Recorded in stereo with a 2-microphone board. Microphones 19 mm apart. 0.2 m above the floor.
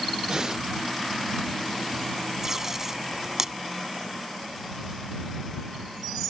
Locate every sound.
0.3 s breathing: 35° right (ahead or behind)
2.4 s tape being pulled: 20° right (ahead or behind)